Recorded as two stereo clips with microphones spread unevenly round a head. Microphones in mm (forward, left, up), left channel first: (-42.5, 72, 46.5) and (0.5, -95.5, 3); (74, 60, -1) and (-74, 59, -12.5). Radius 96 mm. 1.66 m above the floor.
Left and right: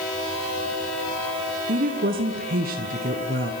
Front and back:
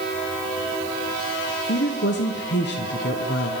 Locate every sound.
1.7 s a woman speaking: 30° right, 1.1 m